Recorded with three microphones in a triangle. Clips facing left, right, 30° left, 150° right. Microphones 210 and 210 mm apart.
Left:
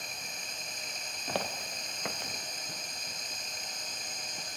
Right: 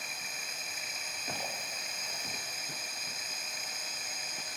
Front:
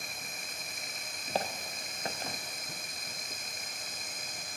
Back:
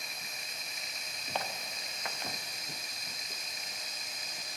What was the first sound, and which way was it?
Running water, 10° right.